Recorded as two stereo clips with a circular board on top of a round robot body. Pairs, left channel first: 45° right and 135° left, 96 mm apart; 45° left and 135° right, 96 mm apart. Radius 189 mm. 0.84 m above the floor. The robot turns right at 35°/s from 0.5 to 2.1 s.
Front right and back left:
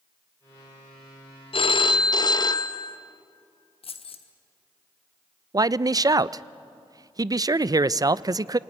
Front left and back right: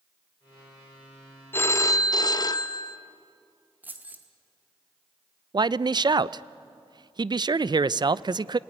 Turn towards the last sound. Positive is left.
turn(degrees=-175)